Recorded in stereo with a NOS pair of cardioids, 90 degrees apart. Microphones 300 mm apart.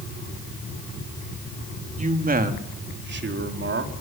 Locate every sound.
2.0 s a man speaking: 25° right, 3 m; by 3.9 s 45° right, 4 m